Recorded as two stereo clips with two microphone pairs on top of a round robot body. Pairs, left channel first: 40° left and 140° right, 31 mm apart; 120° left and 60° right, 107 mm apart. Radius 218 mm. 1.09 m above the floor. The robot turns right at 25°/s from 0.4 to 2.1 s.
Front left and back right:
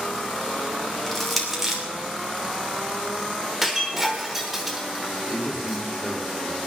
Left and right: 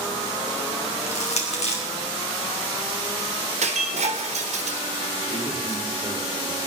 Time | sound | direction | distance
1.1 | crushing | 120° left | 3 m
3.6 | breaking glass | 55° right | 1.1 m
5.3 | a man speaking | 105° left | 4.5 m